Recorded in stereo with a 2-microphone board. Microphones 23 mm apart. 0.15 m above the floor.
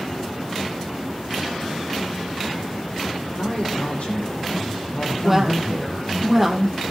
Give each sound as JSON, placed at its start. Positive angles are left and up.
{"t": 3.4, "sound": "a man speaking", "side_deg": 75, "distance_m": 6.5}
{"t": 5.2, "sound": "a woman speaking", "side_deg": -10, "distance_m": 4.0}